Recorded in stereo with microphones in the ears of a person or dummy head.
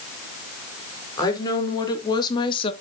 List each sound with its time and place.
1.2 s a woman speaking: 20° left (ahead or behind), 3.5 m; by 2.7 s 25° left (ahead or behind), 1.2 m